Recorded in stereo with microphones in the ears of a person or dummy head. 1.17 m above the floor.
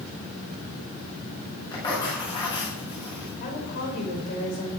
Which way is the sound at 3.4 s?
45° left (ahead or behind).